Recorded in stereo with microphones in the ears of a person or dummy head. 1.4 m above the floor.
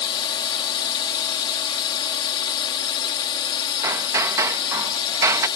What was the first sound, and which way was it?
A drone, 25° left (ahead or behind).